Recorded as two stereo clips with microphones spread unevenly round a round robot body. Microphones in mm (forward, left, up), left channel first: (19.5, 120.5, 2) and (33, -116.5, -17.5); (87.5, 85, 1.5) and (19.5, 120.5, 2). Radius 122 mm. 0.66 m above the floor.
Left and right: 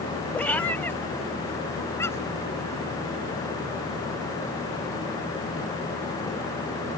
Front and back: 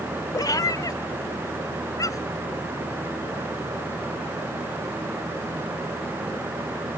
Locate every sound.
0.3 s a cat meowing: 10° left; by 2.4 s 15° left